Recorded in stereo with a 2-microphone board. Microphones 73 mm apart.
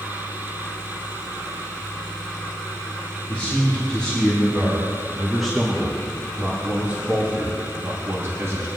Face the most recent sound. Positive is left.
turn(degrees=-45)  # may be behind; listen again after turning